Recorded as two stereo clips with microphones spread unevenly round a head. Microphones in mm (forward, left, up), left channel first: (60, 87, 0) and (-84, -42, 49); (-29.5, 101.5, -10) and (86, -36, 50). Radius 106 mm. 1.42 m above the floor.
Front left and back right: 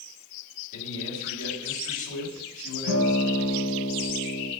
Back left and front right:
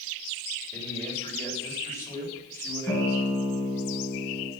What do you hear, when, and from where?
0.7 s a man speaking: 50° left, 7 m
2.9 s a guitar: 40° left, 5 m